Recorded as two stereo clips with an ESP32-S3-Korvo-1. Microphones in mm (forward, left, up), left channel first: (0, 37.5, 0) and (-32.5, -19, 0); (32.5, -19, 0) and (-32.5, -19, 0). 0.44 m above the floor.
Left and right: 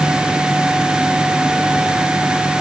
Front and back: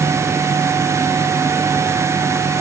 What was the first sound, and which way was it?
Only background noise.